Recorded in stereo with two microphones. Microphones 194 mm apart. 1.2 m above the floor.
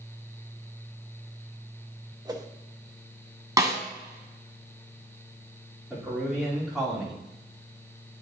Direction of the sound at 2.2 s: 20° right (ahead or behind).